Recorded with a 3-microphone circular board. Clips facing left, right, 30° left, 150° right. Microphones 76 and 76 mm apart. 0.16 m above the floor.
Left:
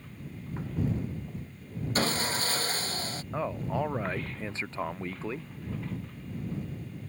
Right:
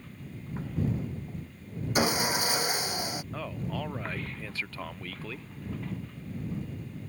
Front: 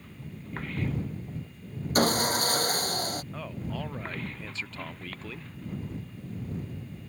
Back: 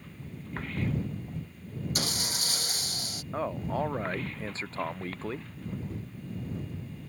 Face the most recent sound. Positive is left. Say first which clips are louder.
# left 9 dB, back 6 dB
turn(degrees=155)